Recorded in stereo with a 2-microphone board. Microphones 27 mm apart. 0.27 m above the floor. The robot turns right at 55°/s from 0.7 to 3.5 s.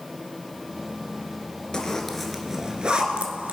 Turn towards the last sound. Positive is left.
turn(degrees=-65)  # may be behind; listen again after turning